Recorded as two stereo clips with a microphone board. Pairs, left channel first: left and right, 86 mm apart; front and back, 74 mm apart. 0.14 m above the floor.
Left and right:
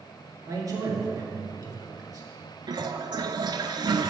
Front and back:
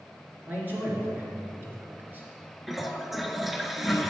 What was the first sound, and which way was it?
A man speaking, 120° right.